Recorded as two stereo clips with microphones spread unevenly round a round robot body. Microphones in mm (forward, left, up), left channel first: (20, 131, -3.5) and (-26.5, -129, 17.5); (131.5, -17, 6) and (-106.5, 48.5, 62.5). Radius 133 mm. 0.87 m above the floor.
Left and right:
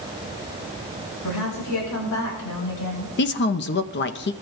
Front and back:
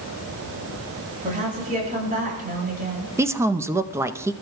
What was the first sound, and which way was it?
A woman speaking, 100° left.